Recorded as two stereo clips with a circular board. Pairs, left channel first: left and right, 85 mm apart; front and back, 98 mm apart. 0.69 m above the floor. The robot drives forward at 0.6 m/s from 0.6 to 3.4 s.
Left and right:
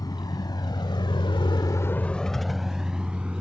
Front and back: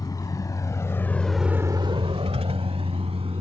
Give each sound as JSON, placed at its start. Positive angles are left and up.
{"t": 0.0, "sound": "a vehicle", "azimuth_deg": 50}